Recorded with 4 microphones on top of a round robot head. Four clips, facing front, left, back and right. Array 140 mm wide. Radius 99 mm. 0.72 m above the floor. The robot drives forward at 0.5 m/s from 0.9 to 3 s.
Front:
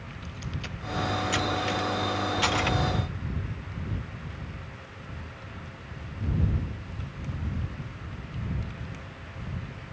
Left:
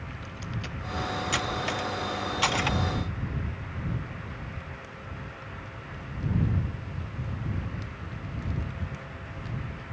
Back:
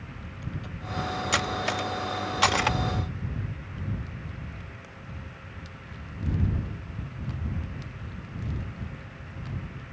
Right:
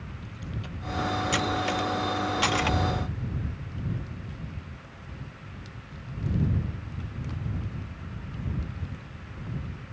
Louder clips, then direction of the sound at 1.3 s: Right 3 dB, even; 175° right.